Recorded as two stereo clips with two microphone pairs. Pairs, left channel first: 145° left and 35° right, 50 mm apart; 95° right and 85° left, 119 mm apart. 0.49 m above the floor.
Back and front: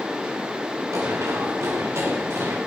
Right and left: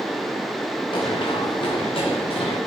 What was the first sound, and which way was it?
Running footsteps, 50° right.